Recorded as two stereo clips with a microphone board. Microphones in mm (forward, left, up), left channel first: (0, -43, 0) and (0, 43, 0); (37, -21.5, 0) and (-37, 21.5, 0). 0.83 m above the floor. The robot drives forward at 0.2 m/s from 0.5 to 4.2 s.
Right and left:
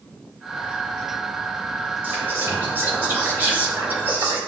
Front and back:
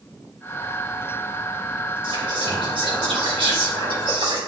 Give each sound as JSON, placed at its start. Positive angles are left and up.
{"t": 2.0, "sound": "whispering", "azimuth_deg": 155, "distance_m": 3.5}